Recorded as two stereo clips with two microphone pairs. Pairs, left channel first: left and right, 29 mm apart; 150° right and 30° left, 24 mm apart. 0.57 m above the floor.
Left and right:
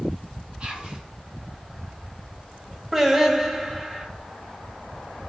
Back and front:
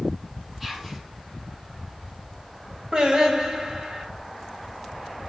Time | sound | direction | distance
0.6 | whispering | 55° right | 0.8 m
2.9 | singing | 15° right | 0.5 m